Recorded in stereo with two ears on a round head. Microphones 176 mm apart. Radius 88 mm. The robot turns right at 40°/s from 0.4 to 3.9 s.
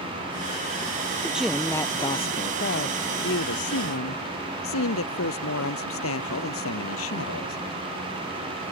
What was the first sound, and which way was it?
A man speaking, 10° right.